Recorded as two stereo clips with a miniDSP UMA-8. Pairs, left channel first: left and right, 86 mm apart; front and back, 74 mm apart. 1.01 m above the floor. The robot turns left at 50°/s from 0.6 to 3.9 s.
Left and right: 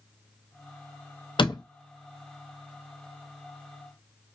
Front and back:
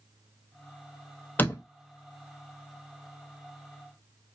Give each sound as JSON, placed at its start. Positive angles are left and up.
{"t": 1.4, "sound": "a door slam", "azimuth_deg": 65, "distance_m": 0.7}